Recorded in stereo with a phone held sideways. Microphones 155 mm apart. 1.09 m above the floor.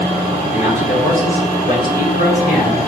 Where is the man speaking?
45° left (ahead or behind), 3 m; by 2.8 s 80° left, 3.5 m.